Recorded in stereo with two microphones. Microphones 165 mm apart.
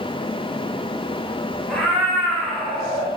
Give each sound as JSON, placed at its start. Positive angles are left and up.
{"t": 1.7, "sound": "a cat meowing", "side_deg": 5, "distance_m": 4.0}